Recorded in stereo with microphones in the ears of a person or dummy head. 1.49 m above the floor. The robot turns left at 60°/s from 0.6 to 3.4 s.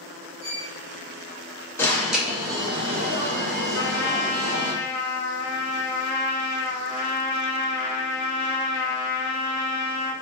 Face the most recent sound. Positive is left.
turn(degrees=60)  # may be behind; listen again after turning